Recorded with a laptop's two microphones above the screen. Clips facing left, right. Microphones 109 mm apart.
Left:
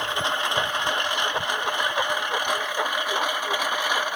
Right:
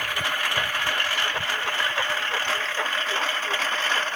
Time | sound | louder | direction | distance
0.0 | a lawn mower | left 3 dB | 20° left (ahead or behind) | ?